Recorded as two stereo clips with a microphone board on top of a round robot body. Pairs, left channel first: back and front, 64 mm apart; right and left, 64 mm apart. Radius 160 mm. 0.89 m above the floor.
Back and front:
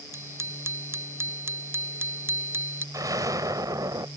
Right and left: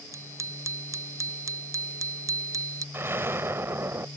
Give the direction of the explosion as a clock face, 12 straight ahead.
11 o'clock.